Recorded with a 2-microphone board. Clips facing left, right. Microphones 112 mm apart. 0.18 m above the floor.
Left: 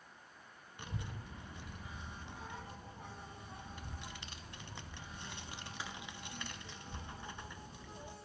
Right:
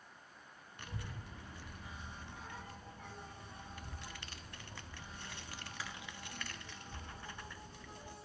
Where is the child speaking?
20° left (ahead or behind), 0.6 m.